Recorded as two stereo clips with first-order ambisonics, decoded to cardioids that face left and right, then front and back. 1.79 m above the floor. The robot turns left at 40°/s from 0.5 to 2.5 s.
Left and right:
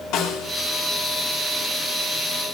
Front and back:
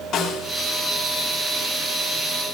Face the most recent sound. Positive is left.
turn(degrees=-20)